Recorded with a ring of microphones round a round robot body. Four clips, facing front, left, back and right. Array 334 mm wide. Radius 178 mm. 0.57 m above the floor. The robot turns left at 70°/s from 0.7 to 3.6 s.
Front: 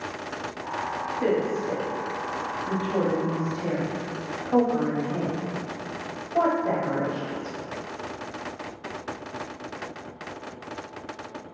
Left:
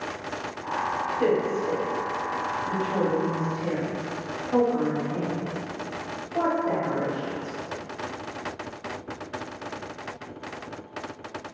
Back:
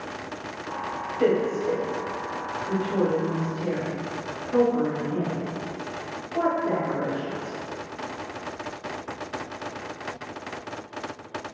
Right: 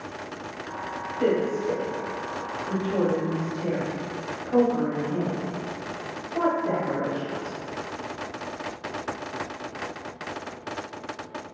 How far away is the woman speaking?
About 1.1 m.